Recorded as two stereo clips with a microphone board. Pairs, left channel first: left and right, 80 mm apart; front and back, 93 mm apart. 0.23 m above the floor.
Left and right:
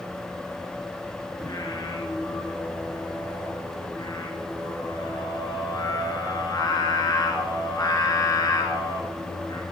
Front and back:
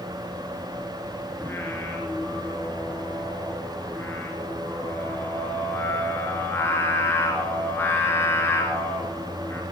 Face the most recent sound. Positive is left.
turn(degrees=60)